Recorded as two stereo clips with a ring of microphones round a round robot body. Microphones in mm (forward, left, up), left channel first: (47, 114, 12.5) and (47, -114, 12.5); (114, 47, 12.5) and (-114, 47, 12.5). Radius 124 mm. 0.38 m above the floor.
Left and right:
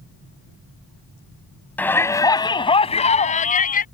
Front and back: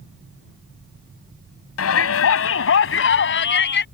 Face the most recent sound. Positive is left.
turn(degrees=40)